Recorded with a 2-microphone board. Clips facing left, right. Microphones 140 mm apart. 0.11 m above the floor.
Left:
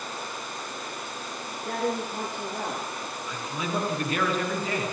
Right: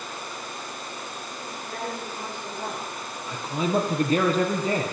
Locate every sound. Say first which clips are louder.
1.6 s a man speaking: left 6 dB; 60° left (ahead or behind), 7 m
3.3 s a man speaking: right 7 dB; 35° right (ahead or behind), 2.5 m